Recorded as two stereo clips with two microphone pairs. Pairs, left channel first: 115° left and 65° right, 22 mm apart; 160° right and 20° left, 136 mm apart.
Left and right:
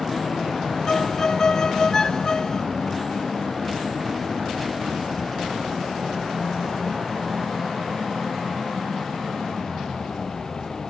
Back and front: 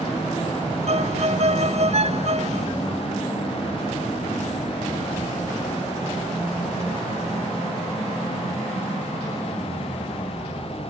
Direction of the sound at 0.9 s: 55° left.